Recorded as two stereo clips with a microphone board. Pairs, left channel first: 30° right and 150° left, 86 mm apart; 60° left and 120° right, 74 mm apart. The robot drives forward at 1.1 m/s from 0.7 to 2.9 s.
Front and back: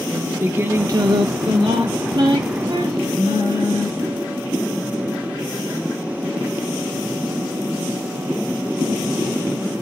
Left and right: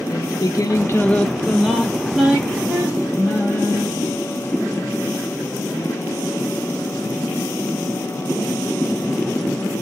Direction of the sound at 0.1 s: 90° left.